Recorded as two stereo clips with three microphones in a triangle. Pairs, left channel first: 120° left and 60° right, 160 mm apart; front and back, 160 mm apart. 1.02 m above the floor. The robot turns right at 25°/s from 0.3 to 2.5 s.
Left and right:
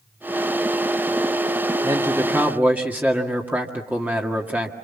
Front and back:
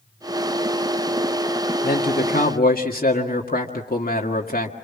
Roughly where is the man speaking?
Ahead.